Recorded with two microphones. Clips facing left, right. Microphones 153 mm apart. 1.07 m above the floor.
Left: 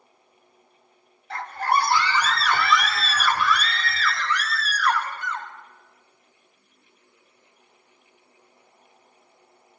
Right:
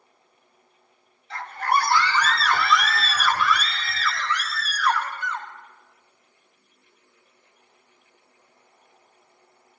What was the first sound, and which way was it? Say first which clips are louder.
A scream: left 1 dB; 55° left (ahead or behind).